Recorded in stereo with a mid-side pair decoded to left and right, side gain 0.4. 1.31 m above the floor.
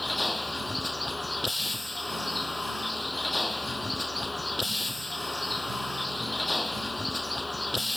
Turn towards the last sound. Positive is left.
turn(degrees=15)